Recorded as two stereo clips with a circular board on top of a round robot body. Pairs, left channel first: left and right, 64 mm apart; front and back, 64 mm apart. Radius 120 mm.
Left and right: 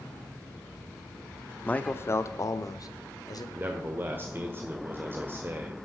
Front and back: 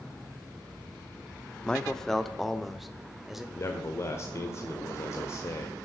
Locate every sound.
1.6 s a man speaking: 55° left, 0.8 m; by 3.5 s 95° left, 1.8 m
3.5 s a man speaking: 40° right, 1.4 m